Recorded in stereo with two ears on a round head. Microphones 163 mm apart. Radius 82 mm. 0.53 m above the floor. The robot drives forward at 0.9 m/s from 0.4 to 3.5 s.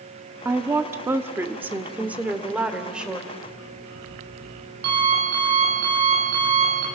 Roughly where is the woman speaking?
Centre.